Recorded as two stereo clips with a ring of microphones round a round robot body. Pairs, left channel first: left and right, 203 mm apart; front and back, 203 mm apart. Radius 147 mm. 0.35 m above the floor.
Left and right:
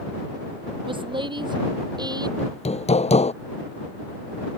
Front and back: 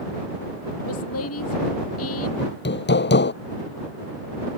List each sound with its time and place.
0.9 s a woman speaking: 25° right; by 2.3 s 20° right
2.4 s hammering: 30° left